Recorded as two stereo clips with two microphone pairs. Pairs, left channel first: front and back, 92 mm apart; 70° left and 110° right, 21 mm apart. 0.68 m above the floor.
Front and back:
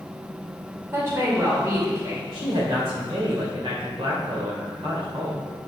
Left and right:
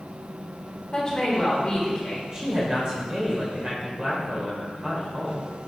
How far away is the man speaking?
About 2.5 m.